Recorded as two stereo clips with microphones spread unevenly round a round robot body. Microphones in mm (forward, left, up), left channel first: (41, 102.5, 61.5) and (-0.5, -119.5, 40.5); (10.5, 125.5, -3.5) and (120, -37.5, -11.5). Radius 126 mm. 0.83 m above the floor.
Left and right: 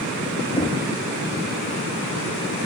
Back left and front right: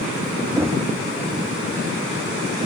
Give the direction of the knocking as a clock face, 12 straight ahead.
11 o'clock.